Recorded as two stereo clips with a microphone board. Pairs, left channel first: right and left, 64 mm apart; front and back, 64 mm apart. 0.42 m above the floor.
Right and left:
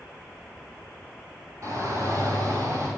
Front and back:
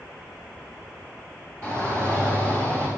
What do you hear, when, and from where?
1.6 s a shout: 50° left, 9 m; by 2.9 s 55° left, 11 m